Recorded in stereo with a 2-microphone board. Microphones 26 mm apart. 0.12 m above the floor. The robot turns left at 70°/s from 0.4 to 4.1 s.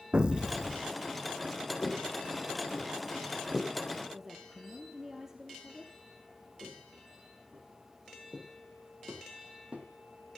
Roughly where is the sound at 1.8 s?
Left.